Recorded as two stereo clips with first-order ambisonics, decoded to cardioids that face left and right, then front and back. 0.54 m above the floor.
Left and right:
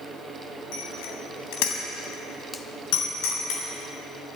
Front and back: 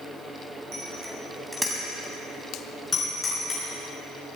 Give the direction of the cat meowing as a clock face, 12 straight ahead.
No cat meowing in this recording.